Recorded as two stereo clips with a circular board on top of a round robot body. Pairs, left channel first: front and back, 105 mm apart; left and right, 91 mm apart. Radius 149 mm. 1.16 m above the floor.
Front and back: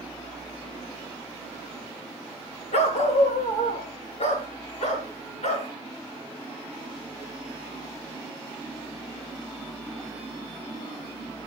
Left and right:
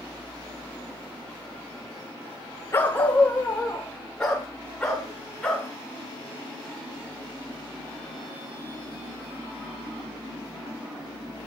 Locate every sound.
2.7 s a dog barking: 25° left, 1.3 m; by 5.7 s 5° left, 5.5 m